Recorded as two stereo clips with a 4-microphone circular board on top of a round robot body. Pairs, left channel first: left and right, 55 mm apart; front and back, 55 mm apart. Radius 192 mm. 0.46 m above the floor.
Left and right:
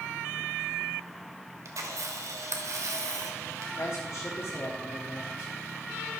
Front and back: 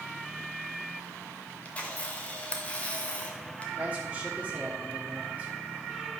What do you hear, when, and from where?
1.6 s a camera shutter: 65° right, 1.5 m
3.8 s a man speaking: 120° left, 1.6 m